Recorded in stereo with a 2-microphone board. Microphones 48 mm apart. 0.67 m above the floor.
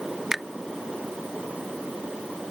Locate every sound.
0.3 s a finger snap: 10° right (ahead or behind)